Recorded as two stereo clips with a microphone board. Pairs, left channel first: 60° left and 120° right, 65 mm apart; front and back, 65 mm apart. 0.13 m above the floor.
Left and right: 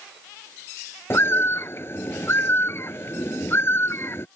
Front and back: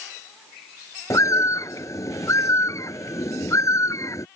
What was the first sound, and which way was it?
A bird, 20° left.